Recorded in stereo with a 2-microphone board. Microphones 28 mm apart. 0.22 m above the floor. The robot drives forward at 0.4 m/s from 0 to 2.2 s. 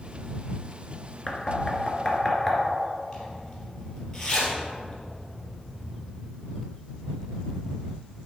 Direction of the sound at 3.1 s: 20° left (ahead or behind).